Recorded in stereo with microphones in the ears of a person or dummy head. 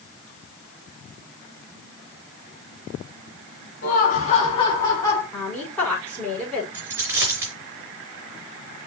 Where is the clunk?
I don't hear a clunk.